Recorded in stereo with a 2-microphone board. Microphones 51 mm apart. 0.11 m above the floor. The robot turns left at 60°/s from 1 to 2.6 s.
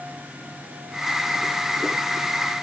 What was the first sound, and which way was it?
Only background noise.